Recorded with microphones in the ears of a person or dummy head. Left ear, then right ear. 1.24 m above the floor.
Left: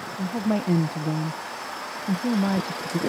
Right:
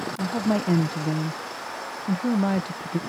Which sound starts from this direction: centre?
A woman speaking, at 0.2 s.